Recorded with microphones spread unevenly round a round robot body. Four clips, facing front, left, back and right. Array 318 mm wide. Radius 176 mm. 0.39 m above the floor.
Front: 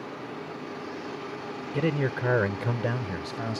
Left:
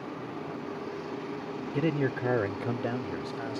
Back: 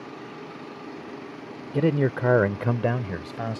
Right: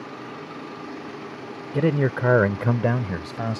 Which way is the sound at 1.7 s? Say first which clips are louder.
Right 7 dB, back 5 dB; 145° right.